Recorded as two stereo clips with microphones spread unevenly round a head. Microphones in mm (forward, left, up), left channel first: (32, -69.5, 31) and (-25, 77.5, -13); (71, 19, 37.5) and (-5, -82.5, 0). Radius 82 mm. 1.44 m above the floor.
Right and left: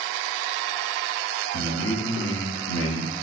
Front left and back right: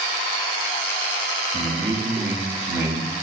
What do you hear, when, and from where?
1.5 s a man speaking: 65° right, 0.9 m